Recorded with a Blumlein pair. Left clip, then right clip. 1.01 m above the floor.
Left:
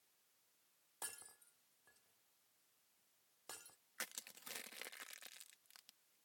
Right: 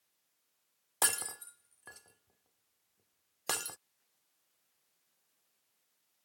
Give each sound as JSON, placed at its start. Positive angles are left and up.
{"t": 1.0, "sound": "breaking glass", "azimuth_deg": -50}
{"t": 4.0, "sound": "crushing", "azimuth_deg": 45}